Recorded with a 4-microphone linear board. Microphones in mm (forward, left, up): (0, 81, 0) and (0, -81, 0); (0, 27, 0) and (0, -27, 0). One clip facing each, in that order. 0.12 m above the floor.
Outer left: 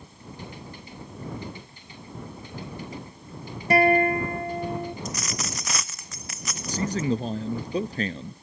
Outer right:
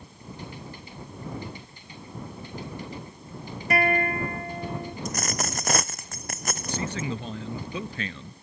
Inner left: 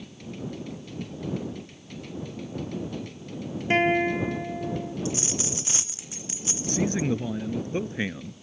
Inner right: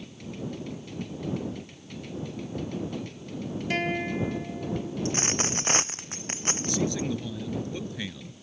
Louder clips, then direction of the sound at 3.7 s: Outer left 6 dB, inner left 7 dB; 30° left (ahead or behind).